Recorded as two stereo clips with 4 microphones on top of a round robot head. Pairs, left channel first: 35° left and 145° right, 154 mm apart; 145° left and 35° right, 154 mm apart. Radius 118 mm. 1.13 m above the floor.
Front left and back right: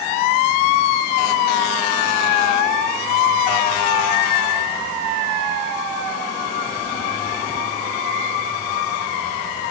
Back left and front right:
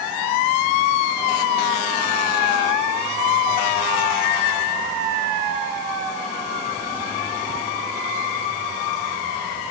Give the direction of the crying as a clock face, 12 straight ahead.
No crying in this recording.